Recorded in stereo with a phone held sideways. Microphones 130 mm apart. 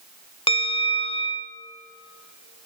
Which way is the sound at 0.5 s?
45° left (ahead or behind).